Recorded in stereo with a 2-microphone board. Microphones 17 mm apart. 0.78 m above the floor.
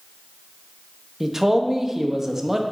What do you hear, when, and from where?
1.2 s a man speaking: 25° right (ahead or behind), 0.8 m